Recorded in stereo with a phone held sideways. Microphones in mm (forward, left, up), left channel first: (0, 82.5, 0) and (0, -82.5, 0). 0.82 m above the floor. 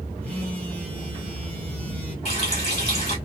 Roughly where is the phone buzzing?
Centre.